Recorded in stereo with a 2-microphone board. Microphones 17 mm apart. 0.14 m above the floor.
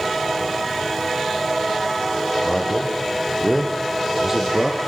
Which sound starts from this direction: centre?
A man speaking, at 2.4 s.